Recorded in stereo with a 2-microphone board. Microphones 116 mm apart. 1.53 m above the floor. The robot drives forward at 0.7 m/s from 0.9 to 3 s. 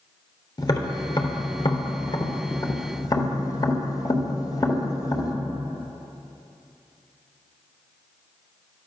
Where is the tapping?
35° left (ahead or behind), 1.6 m.